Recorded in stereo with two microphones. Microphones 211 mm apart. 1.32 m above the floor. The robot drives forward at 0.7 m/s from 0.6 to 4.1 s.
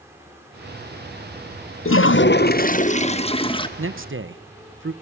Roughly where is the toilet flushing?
Left.